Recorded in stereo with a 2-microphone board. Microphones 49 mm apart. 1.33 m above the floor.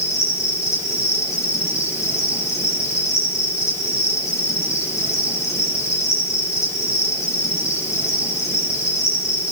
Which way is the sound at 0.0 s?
75° left (ahead or behind).